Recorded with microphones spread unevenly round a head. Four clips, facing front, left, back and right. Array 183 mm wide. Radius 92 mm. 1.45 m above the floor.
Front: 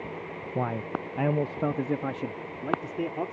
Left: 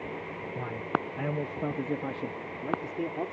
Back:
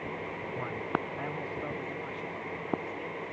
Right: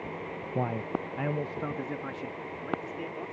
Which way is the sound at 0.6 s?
55° right.